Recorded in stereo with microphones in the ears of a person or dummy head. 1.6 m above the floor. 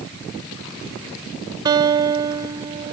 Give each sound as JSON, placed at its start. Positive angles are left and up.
{"t": 1.6, "sound": "a guitar", "side_deg": -30}